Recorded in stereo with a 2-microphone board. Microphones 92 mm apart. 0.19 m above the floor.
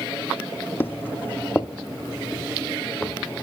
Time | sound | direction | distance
0.8 | footsteps | 25° left (ahead or behind) | 0.5 m